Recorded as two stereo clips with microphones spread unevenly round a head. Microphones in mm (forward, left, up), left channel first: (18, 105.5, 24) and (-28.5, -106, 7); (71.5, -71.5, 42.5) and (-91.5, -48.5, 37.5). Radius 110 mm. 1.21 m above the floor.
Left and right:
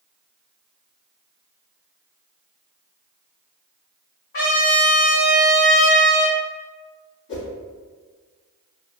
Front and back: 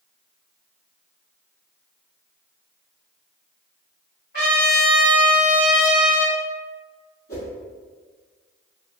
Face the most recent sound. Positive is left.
turn(degrees=40)